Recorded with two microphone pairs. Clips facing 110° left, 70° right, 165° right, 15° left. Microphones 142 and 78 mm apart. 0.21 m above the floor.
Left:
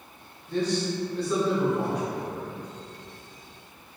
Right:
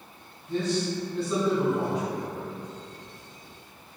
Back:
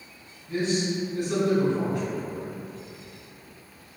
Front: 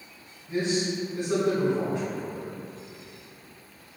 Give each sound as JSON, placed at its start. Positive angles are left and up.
{"t": 0.5, "sound": "a man speaking", "azimuth_deg": -35, "distance_m": 1.9}